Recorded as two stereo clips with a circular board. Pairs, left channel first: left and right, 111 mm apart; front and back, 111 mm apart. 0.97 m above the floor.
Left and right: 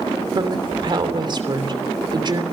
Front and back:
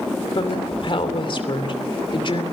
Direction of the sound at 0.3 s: 40° right.